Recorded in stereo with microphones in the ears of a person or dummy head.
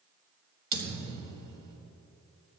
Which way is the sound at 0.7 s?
30° right (ahead or behind).